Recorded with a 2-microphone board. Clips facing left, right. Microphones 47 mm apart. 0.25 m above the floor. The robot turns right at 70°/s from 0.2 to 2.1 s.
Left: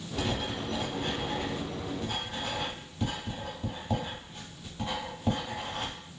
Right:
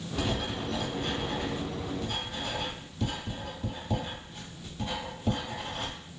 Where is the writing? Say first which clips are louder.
Even; 5° left (ahead or behind), 1.7 m; by 6.0 s 20° left (ahead or behind), 1.7 m.